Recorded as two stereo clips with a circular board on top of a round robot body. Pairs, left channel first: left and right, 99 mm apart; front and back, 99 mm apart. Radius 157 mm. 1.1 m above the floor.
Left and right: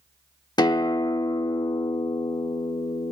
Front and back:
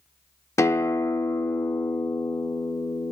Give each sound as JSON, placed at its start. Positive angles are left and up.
{"t": 0.6, "sound": "a guitar", "azimuth_deg": 55, "distance_m": 0.9}